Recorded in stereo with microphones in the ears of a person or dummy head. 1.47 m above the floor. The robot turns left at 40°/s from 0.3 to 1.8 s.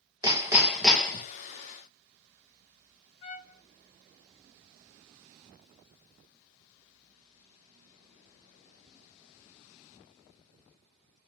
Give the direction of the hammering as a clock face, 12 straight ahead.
5 o'clock.